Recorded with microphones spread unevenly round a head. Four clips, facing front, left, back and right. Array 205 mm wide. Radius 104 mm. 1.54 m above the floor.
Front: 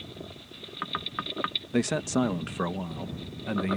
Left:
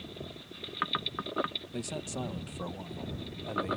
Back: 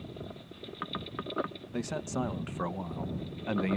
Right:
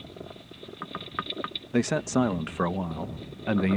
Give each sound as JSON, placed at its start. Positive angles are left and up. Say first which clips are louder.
{"t": 1.7, "sound": "a man speaking", "louder": "right 17 dB, front 8 dB", "azimuth_deg": -50}